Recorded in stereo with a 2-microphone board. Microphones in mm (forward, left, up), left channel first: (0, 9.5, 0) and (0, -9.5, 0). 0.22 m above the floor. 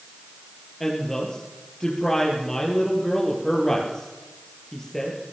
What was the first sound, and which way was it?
A woman speaking, 15° left (ahead or behind).